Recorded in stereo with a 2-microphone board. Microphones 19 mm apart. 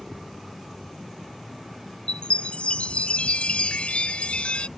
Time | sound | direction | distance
2.1 | a chime | 70° left (ahead or behind) | ?